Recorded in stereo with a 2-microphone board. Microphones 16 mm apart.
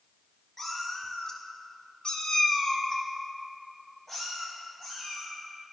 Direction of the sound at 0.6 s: 15° left (ahead or behind).